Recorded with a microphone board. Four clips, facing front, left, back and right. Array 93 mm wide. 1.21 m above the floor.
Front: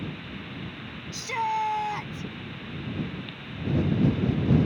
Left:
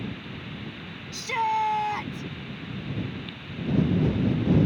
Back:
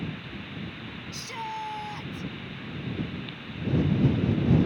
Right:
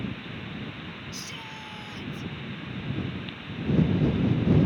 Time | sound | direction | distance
1.1 | a shout | 60° left | ?